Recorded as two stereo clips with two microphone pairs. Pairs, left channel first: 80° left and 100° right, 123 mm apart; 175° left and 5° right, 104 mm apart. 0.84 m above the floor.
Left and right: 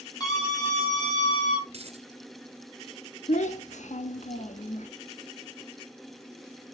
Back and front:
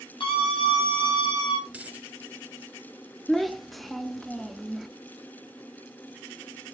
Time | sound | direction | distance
0.2 | a scream | 135° left | 7 m
1.7 | a dropped coin | 80° right | 1.5 m
3.3 | a child speaking | 85° left | 0.9 m